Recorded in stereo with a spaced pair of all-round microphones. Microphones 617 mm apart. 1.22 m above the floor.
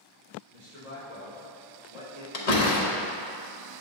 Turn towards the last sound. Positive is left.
turn(degrees=85)